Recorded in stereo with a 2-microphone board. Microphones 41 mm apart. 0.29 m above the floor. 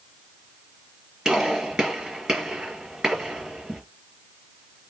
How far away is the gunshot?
About 5 m.